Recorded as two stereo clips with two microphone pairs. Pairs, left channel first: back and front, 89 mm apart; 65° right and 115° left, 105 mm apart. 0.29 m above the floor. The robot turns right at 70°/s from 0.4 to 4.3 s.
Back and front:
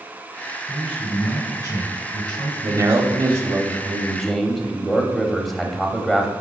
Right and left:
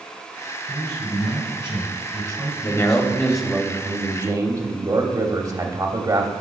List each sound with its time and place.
0.7 s a man speaking: 55° left, 2.5 m; by 3.5 s 105° right, 2.5 m
2.6 s a man speaking: 25° right, 1.2 m; by 6.3 s 90° left, 1.2 m